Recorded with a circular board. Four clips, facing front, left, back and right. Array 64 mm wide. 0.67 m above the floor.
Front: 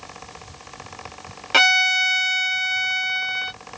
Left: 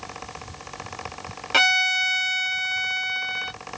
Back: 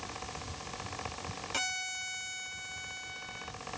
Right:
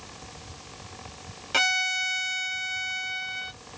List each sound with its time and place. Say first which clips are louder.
1.5 s a violin: left 5 dB, front 22 dB; 20° left